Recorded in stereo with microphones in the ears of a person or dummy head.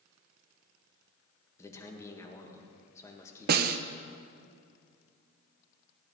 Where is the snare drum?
50° right (ahead or behind), 0.5 m.